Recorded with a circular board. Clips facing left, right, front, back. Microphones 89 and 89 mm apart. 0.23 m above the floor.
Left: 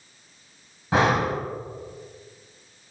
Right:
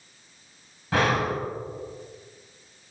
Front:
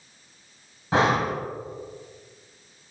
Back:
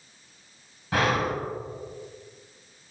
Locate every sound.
0.9 s breathing: 40° left, 1.3 m